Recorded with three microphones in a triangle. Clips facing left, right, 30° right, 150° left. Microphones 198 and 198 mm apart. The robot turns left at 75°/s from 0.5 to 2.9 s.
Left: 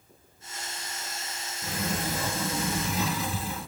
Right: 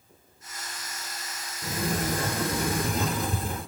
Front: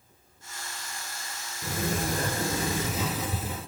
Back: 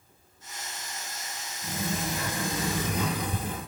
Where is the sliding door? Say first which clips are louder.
Right 3 dB, front 2 dB; 20° right, 2.5 m; by 3.7 s 115° right, 2.5 m.